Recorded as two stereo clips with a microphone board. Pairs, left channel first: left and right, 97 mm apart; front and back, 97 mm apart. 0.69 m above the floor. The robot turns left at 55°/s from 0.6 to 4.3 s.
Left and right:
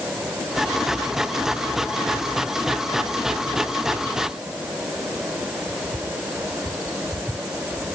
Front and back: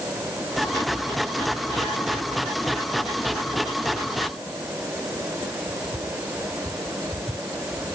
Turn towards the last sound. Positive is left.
No sound to turn to.